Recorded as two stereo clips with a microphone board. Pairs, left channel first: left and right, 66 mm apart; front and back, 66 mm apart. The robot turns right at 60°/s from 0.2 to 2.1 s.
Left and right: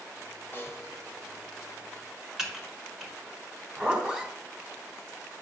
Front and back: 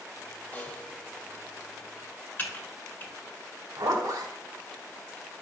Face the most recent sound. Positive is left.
turn(degrees=-165)